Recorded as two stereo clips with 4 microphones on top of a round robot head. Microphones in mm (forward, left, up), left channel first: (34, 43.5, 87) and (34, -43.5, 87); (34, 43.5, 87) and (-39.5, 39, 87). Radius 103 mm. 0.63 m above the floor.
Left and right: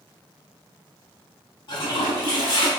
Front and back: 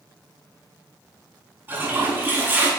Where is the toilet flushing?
125° left, 4 m.